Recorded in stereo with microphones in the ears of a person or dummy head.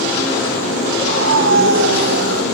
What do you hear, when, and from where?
1.0 s a scream: 75° right (ahead or behind), 4.5 m; by 2.4 s 65° right (ahead or behind), 4.5 m